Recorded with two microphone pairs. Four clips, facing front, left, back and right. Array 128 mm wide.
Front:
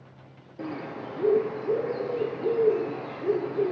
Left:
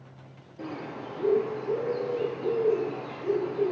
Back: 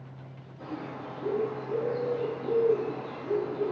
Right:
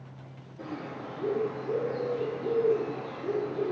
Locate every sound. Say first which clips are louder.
0.6 s a bird: left 1 dB, front 3 dB; 10° left, 1.4 m